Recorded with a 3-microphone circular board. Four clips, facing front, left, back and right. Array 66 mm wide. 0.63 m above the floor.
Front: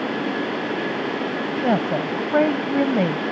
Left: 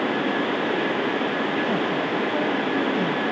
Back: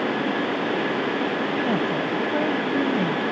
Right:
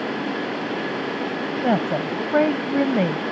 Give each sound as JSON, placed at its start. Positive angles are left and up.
{"t": 1.6, "sound": "a woman speaking", "azimuth_deg": -45}